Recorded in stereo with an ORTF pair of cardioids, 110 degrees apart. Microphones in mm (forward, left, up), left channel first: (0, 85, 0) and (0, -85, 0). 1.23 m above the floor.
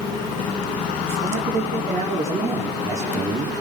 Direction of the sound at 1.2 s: 40° right.